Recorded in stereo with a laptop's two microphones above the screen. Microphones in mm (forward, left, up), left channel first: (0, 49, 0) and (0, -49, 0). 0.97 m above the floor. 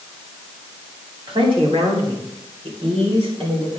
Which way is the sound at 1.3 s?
65° right (ahead or behind).